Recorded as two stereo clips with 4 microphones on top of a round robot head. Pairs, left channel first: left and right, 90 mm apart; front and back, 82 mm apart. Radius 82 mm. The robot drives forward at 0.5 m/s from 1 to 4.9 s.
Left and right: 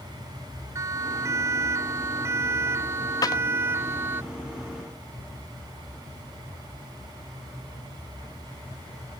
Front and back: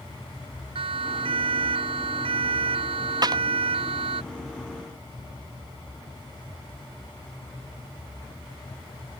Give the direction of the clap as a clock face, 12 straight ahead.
7 o'clock.